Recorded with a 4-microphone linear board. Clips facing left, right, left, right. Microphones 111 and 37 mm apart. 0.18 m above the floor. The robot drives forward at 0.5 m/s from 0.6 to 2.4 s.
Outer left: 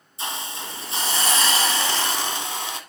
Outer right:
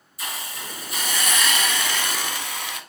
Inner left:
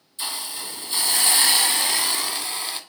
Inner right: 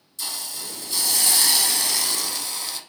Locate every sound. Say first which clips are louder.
0.2 s a hiss: outer left 3 dB, inner left 2 dB; 30° left (ahead or behind), 0.9 m; by 2.8 s 25° left (ahead or behind), 1.0 m